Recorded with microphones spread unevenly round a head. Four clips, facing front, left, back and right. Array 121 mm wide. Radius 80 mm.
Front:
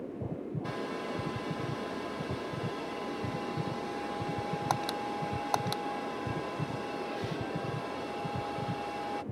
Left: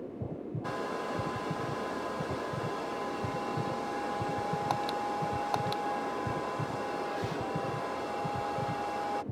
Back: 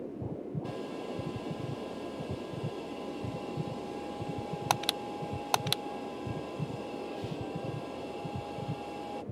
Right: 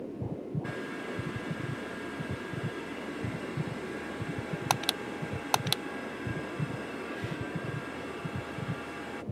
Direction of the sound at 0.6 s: 120° left.